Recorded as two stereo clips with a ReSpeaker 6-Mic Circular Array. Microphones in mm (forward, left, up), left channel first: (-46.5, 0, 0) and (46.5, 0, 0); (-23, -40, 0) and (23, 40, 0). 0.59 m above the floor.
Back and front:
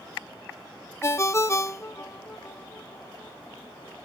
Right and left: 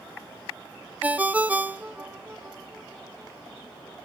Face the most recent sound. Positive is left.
turn(degrees=130)